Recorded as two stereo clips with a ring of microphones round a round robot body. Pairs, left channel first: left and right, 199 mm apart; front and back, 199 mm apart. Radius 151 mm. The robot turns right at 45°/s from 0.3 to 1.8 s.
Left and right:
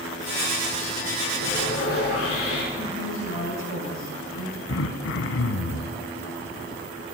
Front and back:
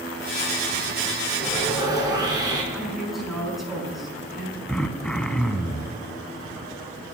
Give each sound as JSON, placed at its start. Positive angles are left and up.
{"t": 1.4, "sound": "sawing", "azimuth_deg": 90, "distance_m": 4.5}
{"t": 2.7, "sound": "a man speaking", "azimuth_deg": 90, "distance_m": 6.5}
{"t": 4.7, "sound": "throat clearing", "azimuth_deg": 85, "distance_m": 1.2}